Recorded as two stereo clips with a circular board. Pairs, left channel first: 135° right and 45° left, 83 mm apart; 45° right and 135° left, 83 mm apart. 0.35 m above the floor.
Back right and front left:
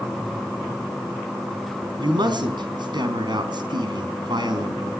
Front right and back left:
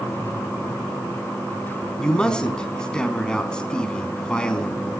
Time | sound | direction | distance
2.0 | a man speaking | 35° left | 4 m